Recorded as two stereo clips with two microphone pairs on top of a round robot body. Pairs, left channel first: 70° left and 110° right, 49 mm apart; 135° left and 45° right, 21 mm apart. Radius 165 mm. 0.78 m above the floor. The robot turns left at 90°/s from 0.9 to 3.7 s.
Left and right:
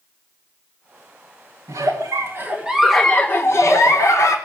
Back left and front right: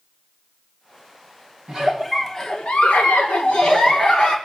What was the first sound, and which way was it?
A giggle, 90° right.